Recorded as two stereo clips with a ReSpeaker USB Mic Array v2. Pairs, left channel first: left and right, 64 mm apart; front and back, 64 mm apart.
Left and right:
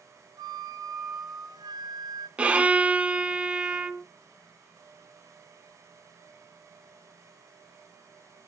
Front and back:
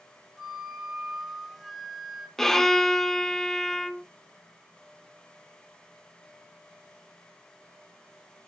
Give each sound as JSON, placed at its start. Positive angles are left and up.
{"t": 0.4, "sound": "a flute", "azimuth_deg": -90, "distance_m": 0.9}
{"t": 2.4, "sound": "a violin", "azimuth_deg": -75, "distance_m": 0.5}